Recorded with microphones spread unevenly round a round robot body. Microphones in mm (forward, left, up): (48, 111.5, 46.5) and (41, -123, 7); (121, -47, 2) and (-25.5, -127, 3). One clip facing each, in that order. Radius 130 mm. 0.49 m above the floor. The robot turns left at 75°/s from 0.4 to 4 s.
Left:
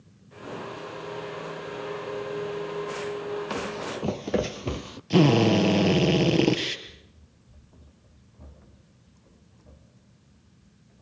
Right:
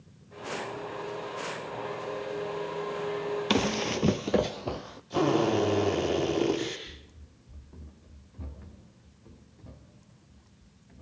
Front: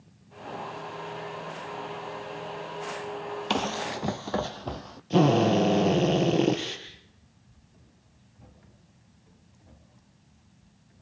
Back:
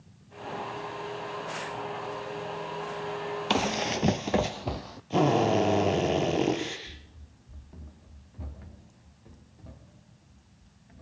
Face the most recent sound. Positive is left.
turn(degrees=-140)